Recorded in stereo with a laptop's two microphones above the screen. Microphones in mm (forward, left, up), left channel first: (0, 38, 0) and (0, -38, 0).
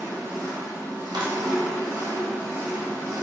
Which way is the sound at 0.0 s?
45° right (ahead or behind).